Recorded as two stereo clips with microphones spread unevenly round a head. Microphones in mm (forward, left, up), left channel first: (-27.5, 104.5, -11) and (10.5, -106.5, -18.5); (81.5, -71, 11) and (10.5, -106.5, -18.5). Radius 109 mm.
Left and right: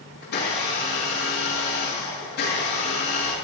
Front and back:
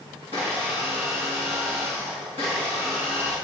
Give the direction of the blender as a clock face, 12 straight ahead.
7 o'clock.